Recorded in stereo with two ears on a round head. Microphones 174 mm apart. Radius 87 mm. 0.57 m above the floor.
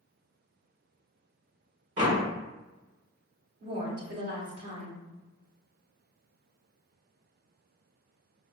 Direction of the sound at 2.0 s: 40° right (ahead or behind).